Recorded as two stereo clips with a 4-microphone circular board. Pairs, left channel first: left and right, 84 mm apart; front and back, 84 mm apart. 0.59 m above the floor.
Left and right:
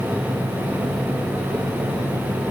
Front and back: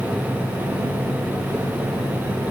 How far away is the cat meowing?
I don't hear a cat meowing.